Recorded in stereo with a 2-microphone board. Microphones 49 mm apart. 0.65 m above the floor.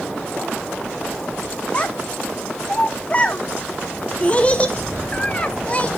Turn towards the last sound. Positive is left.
turn(degrees=25)  # may be behind; listen again after turning